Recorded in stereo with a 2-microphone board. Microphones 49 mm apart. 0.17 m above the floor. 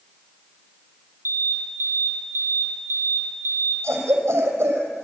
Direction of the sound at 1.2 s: 70° right (ahead or behind).